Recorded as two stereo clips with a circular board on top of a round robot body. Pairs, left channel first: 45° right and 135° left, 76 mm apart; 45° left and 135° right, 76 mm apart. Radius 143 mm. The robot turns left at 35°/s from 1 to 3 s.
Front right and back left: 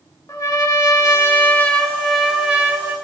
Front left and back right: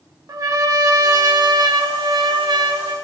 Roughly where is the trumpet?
Right.